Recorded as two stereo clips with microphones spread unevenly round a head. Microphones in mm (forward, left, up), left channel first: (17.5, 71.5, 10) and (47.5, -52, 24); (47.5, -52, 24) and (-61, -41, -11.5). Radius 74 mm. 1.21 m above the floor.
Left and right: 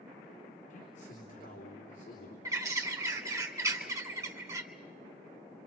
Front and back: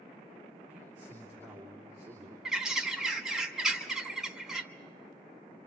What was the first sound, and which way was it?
A man speaking, 85° left.